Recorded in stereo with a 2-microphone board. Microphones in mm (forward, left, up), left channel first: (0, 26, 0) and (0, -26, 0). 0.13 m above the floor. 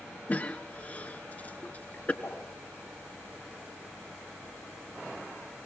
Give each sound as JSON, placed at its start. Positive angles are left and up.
{"t": 0.3, "sound": "a cough", "side_deg": 30, "distance_m": 1.5}
{"t": 2.2, "sound": "a whoosh", "side_deg": 45, "distance_m": 7.0}